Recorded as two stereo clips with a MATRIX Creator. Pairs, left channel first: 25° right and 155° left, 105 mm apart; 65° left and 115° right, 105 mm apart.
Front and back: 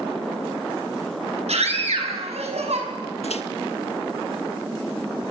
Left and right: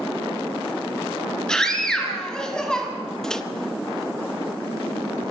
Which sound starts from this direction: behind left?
A scream, at 1.5 s.